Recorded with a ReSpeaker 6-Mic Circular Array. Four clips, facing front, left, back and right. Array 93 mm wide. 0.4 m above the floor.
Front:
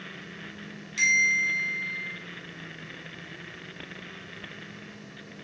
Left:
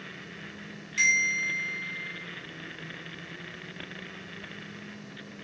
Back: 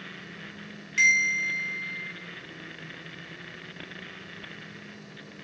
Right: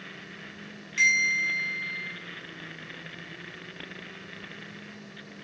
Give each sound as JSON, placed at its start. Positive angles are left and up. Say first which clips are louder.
{"t": 1.0, "sound": "a bell", "louder": "right 2 dB, back 1 dB", "azimuth_deg": -170, "distance_m": 1.0}